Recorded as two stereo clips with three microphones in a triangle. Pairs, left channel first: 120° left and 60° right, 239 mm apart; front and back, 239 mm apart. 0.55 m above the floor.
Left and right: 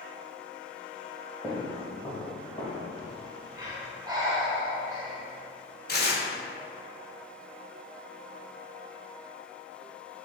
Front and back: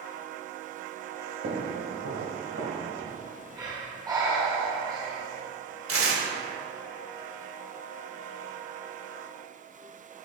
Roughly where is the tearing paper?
Behind.